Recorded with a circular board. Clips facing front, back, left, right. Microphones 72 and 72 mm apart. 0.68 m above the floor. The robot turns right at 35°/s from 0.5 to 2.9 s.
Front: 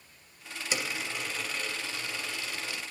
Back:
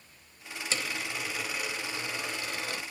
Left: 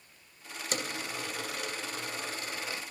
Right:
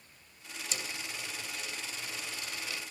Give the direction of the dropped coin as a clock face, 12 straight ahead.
10 o'clock.